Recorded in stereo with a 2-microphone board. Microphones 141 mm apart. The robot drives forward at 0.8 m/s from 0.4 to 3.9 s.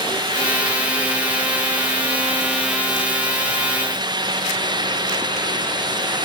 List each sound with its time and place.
Only background noise.